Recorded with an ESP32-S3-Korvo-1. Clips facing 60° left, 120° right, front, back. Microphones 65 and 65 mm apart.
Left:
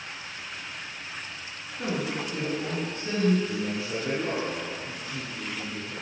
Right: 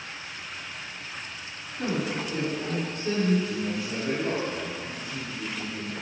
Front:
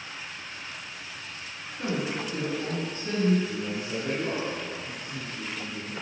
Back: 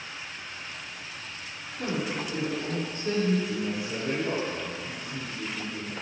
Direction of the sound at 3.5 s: 85° left.